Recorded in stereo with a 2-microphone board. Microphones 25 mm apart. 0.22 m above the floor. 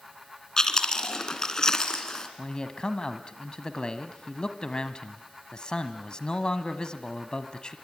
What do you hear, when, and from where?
0.6 s chewing: 30° left (ahead or behind), 2.5 m
2.4 s a man speaking: 40° left (ahead or behind), 1.3 m